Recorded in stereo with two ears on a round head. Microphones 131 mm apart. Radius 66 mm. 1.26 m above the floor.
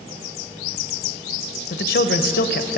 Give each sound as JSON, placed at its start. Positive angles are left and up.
{"t": 1.7, "sound": "a man speaking", "side_deg": 70, "distance_m": 0.8}